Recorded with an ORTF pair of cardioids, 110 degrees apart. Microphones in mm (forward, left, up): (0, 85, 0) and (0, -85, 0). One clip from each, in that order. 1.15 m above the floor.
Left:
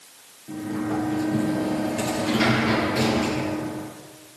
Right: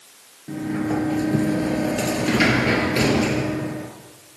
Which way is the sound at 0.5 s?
40° right.